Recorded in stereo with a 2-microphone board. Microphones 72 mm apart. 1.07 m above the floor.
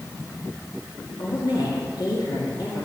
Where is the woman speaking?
75° left (ahead or behind), 2.5 m.